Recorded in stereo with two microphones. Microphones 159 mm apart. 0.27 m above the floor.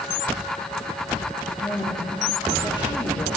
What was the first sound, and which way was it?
A woman speaking, 30° left (ahead or behind).